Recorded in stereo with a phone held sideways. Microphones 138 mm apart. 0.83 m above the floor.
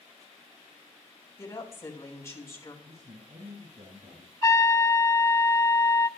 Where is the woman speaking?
25° left (ahead or behind), 3.5 m.